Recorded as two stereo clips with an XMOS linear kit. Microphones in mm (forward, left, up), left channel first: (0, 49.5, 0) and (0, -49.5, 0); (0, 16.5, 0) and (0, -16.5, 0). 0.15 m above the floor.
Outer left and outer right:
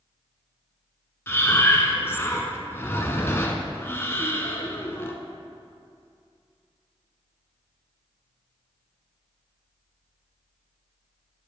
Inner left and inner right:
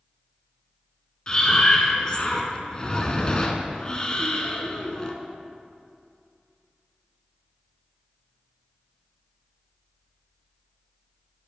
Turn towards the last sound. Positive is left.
turn(degrees=25)  # may be behind; listen again after turning